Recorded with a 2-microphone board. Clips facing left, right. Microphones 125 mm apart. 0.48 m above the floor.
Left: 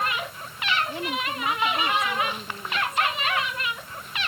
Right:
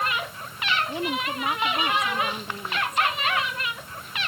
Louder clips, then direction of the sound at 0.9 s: Right 2 dB; 15° right (ahead or behind).